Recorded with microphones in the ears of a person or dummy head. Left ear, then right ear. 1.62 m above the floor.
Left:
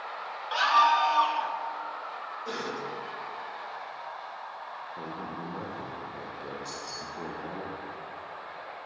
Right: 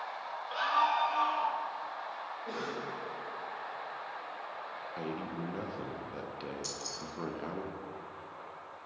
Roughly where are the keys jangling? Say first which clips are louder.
Left 3 dB; right.